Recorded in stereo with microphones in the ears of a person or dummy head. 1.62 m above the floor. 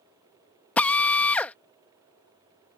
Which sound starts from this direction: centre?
A drill, at 0.8 s.